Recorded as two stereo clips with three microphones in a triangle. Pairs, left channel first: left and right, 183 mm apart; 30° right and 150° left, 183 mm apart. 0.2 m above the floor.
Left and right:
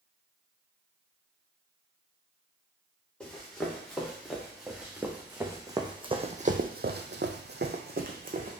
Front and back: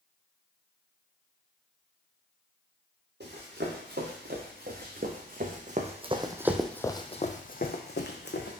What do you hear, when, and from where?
3.2 s running footsteps: 175° left, 1.9 m; by 8.6 s 45° right, 1.0 m